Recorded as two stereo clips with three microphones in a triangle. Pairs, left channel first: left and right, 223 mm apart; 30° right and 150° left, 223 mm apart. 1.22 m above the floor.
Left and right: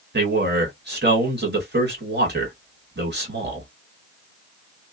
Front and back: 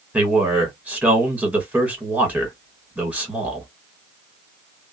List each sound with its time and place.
0.1 s a man speaking: 125° right, 1.7 m